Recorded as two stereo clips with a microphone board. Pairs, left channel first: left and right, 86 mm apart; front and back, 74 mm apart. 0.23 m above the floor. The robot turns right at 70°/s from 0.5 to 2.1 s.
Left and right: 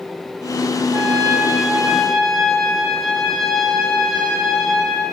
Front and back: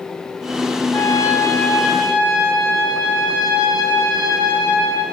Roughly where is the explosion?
No explosion in this recording.